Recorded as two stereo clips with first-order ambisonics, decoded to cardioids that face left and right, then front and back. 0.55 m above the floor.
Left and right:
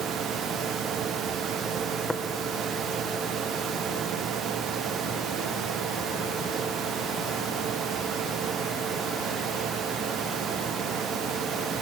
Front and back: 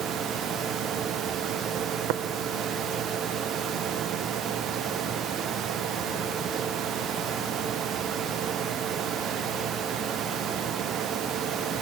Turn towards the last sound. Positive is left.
turn(degrees=180)